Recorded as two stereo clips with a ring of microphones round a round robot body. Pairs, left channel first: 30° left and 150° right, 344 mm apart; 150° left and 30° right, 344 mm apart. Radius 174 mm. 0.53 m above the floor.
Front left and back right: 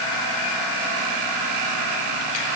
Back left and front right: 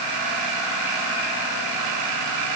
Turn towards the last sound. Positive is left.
No sound to turn to.